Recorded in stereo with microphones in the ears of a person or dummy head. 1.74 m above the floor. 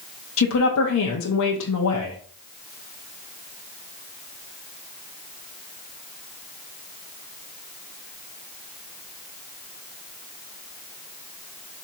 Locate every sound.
0.4 s a woman speaking: 80° left, 0.8 m